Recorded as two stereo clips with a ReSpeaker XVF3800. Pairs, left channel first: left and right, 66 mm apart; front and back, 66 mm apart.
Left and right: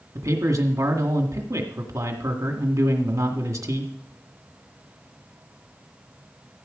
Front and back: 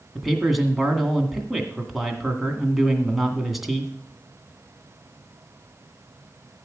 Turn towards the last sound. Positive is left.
turn(degrees=-90)